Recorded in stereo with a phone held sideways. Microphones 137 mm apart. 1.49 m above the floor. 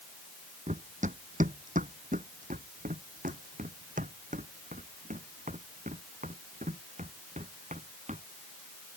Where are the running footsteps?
60° right (ahead or behind).